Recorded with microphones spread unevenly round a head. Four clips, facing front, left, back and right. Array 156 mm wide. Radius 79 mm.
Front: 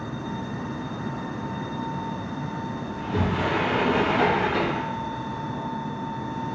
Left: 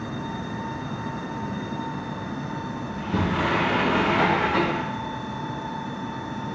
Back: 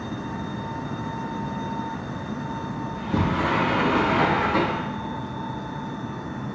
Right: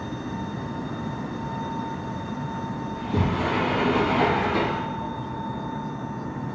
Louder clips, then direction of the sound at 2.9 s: Left 1 dB, back 2 dB; 145° left.